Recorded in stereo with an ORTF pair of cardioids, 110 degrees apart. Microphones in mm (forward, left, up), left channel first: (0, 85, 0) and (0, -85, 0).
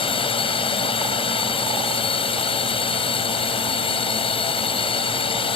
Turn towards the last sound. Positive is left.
turn(degrees=35)